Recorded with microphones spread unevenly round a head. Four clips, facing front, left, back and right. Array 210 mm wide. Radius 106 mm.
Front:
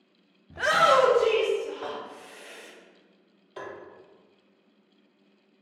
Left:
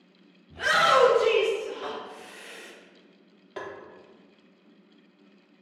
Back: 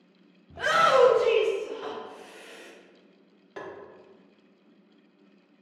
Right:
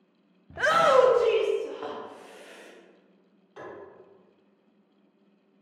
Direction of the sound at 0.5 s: 90° right.